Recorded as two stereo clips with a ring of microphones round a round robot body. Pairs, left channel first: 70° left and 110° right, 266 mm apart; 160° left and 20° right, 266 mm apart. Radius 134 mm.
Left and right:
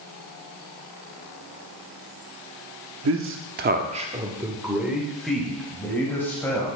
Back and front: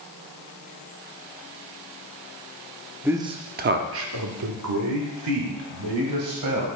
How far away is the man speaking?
About 0.9 m.